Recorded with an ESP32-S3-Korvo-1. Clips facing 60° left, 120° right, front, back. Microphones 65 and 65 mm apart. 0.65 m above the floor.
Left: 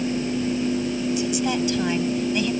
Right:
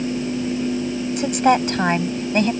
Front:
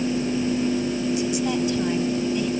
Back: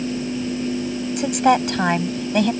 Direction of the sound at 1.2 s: 155° right.